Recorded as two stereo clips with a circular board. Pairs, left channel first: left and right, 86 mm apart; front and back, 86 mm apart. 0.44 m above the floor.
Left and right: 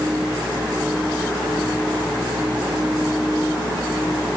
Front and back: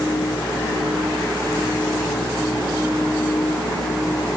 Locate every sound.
Only background noise.